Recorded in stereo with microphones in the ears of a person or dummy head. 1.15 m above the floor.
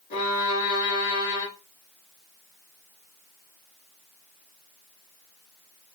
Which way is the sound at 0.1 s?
40° left (ahead or behind).